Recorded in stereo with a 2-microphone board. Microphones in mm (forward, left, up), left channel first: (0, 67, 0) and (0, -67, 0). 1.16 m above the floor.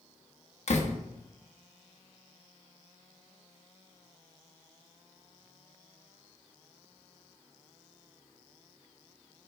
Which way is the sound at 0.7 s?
60° left (ahead or behind).